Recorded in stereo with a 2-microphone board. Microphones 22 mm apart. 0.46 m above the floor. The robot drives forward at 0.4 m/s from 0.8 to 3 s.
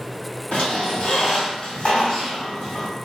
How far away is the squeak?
About 1.9 m.